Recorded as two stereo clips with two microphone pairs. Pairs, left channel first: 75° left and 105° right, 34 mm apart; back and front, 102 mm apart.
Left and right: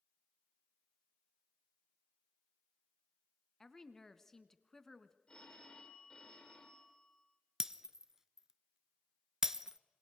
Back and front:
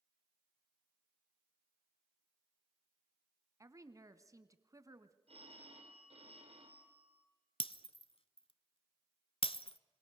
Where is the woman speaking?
10° left, 1.2 m.